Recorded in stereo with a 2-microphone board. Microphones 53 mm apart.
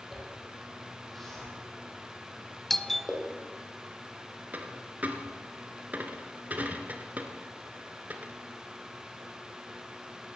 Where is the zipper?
5° left (ahead or behind), 8 m.